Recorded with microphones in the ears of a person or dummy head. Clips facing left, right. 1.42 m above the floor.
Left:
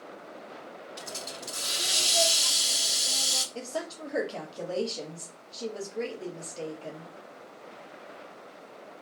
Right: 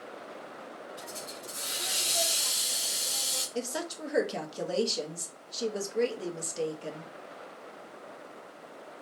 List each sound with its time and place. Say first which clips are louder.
1.0 s a hiss: left 1 dB; 65° left (ahead or behind), 0.8 m
3.5 s a woman speaking: right 1 dB; 25° right (ahead or behind), 1.0 m